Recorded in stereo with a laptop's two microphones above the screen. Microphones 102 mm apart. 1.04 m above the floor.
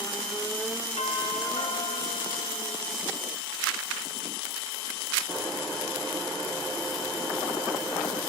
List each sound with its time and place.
1.0 s a doorbell: 70° left (ahead or behind), 2.5 m